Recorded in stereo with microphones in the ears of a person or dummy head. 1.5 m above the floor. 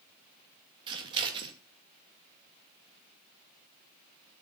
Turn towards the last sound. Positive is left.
turn(degrees=-25)  # may be behind; listen again after turning